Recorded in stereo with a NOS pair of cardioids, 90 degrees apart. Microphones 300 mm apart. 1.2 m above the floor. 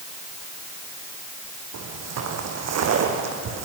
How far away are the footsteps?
About 4 m.